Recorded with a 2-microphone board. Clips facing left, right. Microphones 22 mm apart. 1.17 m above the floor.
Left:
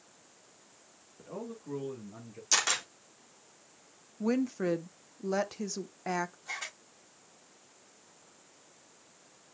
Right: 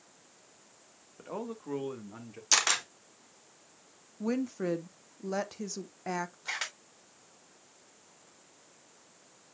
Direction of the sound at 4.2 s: 10° left (ahead or behind).